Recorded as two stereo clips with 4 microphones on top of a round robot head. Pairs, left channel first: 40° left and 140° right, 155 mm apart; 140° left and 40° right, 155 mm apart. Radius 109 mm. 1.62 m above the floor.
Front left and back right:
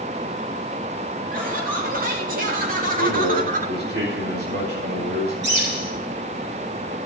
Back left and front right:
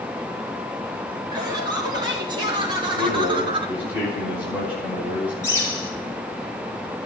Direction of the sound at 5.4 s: 145° right.